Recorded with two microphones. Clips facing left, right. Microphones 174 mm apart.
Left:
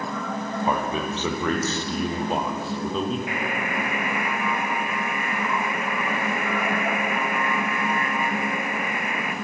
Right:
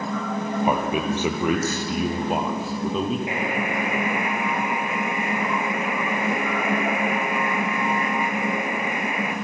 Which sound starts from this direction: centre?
A man speaking, at 0.6 s.